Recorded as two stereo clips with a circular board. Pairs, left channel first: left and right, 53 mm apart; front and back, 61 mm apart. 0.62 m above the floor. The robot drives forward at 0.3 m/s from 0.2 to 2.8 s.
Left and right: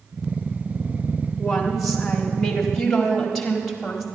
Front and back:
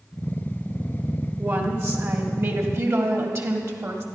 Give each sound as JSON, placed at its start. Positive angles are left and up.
{"t": 1.4, "sound": "a woman speaking", "azimuth_deg": 175, "distance_m": 1.4}